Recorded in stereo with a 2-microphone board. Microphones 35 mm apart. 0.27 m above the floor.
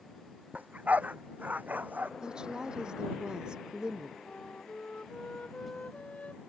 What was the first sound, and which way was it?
A dog barking, 45° right (ahead or behind).